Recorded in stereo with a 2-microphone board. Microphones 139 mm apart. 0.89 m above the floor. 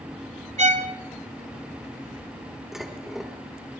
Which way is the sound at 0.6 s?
55° right (ahead or behind).